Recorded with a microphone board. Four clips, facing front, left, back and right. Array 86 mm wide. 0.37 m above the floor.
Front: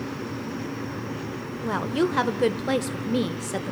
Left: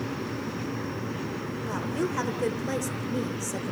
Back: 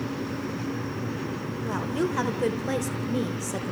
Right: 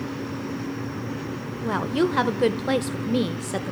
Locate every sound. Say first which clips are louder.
1.6 s a woman speaking: right 8 dB, front 4 dB; 60° right, 0.9 m